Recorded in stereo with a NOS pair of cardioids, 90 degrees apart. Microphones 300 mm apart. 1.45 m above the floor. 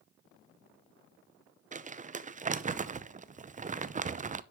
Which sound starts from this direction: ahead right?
Crumpling, at 1.7 s.